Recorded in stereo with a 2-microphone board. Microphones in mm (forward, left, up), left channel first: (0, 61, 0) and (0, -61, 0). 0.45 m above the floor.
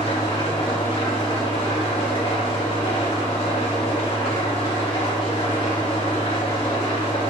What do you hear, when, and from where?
0.0 s an engine running: 50° left (ahead or behind), 3 m